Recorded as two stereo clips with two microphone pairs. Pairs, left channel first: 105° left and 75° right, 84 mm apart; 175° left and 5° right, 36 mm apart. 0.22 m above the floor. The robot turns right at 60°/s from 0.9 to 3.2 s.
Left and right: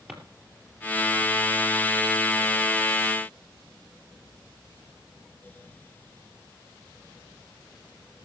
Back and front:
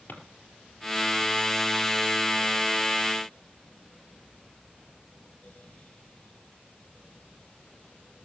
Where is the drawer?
150° right, 3 m.